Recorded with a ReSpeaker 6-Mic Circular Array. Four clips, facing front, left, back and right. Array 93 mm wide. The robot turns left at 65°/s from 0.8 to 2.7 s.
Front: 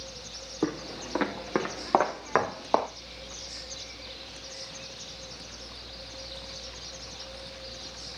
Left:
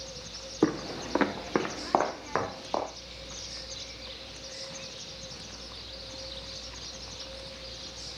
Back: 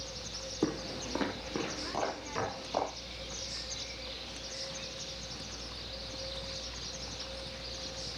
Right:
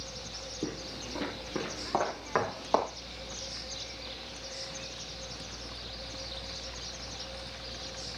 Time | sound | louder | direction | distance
0.6 | footsteps | left 11 dB, front 3 dB | 80° left | 0.9 m